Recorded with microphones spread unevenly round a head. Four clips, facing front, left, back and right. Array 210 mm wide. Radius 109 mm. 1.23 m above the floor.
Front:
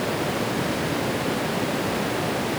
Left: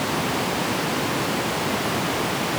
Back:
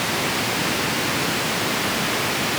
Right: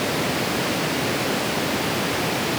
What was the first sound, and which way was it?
Only background noise.